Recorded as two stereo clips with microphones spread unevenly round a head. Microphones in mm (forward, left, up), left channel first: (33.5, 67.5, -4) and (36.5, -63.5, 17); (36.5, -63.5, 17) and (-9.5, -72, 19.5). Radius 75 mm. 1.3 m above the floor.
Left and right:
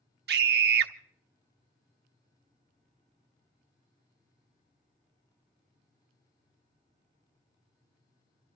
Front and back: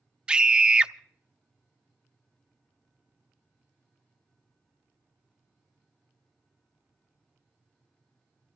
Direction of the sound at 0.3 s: 100° right.